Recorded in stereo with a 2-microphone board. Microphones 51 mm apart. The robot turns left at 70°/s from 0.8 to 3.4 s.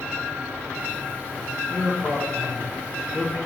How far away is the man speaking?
About 0.8 m.